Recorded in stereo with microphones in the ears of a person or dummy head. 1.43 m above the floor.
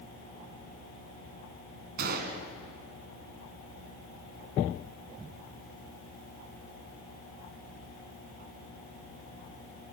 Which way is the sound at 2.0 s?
45° right (ahead or behind).